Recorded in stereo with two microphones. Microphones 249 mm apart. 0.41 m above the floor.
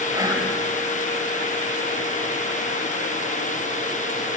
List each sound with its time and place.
0.1 s whispering: 15° right (ahead or behind), 1.6 m